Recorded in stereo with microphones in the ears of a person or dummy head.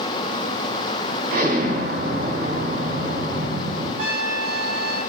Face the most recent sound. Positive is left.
turn(degrees=-55)  # may be behind; listen again after turning